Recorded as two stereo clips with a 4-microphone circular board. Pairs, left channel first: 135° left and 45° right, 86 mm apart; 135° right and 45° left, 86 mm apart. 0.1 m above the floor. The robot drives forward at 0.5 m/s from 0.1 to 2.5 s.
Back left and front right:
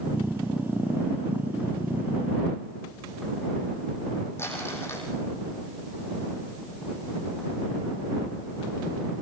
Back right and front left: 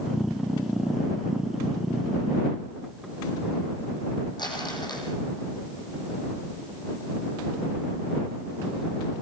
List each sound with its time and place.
4.4 s crumpling: 165° right, 4 m